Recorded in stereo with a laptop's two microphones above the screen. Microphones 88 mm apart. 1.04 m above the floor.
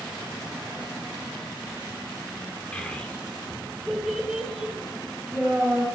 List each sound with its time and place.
2.7 s a child speaking: 15° left (ahead or behind), 2 m; by 5.8 s 15° right (ahead or behind), 4 m